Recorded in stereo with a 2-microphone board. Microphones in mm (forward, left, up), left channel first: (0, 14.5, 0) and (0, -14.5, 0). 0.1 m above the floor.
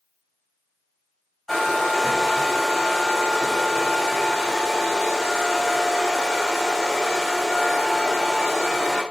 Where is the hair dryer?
10° left (ahead or behind), 4 m.